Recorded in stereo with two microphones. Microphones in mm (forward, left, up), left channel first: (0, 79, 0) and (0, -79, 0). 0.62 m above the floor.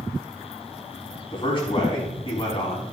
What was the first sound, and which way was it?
A man speaking, 35° left (ahead or behind).